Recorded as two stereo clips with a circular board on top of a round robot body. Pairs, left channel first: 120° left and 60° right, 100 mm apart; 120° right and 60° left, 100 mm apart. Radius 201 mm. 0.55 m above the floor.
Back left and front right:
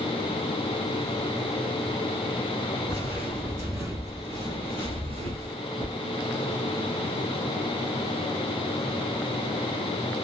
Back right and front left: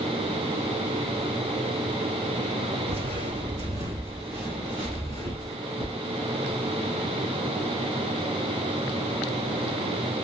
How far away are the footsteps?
About 0.8 m.